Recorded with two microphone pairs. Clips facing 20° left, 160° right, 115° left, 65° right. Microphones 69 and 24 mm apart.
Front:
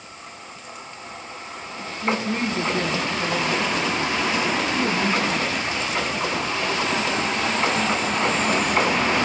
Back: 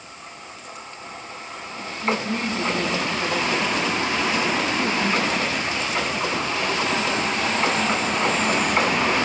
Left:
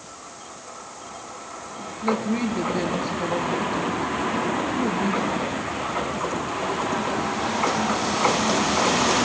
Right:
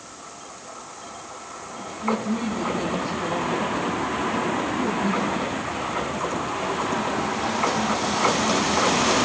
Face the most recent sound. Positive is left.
turn(degrees=80)